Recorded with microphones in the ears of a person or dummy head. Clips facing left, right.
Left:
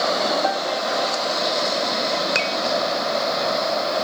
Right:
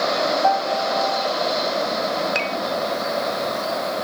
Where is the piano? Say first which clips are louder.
Right 3 dB; 30° left (ahead or behind).